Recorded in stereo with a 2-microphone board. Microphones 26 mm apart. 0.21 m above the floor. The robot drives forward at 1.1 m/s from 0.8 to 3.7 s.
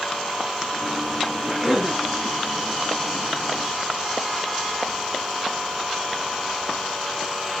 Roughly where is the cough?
Right.